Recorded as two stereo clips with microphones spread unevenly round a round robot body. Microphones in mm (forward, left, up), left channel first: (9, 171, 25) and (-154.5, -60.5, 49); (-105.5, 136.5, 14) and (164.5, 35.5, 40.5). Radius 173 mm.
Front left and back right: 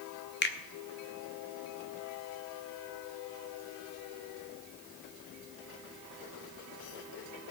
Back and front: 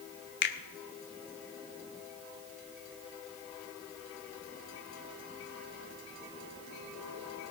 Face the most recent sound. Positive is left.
turn(degrees=110)